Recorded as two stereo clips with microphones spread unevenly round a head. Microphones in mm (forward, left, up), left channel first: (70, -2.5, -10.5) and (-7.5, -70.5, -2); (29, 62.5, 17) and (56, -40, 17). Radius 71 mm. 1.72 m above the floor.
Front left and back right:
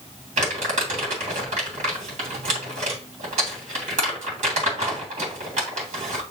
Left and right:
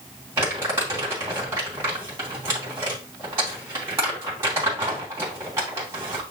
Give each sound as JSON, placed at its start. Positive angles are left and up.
{"t": 0.4, "sound": "crumpling", "azimuth_deg": -150, "distance_m": 2.5}